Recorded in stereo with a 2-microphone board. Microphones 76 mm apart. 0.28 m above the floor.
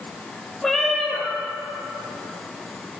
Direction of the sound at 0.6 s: Centre (ahead or behind).